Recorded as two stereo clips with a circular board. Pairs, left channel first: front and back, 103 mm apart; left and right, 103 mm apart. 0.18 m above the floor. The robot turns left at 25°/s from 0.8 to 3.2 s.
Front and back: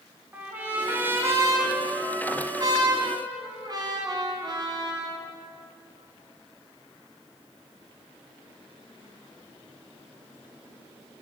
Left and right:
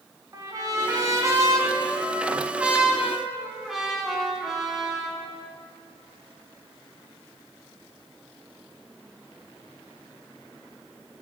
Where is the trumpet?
115° right, 0.9 m; by 5.2 s 175° right, 0.9 m.